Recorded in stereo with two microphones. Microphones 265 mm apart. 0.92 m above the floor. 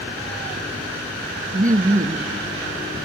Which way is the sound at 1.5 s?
30° right (ahead or behind).